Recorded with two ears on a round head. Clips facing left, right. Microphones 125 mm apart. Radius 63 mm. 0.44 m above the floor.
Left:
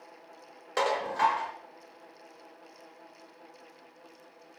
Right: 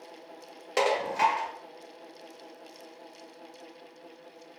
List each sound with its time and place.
0.8 s dishes clattering: 20° right (ahead or behind), 0.8 m